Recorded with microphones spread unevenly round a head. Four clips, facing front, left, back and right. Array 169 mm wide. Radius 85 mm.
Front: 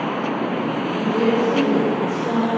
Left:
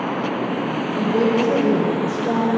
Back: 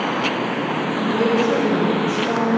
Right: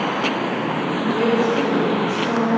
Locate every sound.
1.0 s a woman speaking: 85° left, 4.5 m